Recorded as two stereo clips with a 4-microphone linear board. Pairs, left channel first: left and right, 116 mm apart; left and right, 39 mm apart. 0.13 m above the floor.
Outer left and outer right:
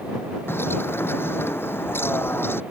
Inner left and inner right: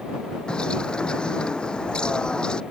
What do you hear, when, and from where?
0.5 s a bird: 20° left (ahead or behind)